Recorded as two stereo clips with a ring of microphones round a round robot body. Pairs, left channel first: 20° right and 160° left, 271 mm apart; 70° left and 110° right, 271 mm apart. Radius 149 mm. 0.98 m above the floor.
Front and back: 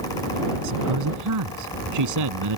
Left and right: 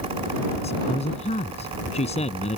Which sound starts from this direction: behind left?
A man speaking, at 0.6 s.